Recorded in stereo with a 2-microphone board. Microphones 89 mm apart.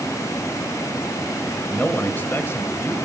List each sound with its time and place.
1.7 s a man speaking: 15° left (ahead or behind), 1.5 m; by 3.0 s 30° left (ahead or behind), 1.6 m